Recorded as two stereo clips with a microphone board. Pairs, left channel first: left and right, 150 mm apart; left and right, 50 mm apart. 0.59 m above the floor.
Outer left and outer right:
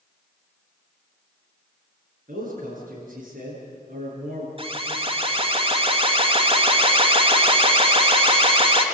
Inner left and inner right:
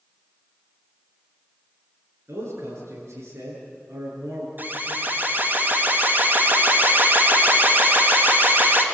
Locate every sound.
2.3 s a man speaking: 60° right (ahead or behind), 9 m
4.6 s an alarm: 40° right (ahead or behind), 2.5 m